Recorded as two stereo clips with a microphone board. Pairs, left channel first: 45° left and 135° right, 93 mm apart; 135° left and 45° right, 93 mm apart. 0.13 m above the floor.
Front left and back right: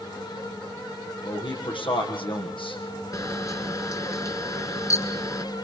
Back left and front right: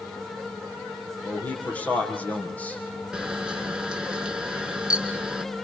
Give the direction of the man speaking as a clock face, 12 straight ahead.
10 o'clock.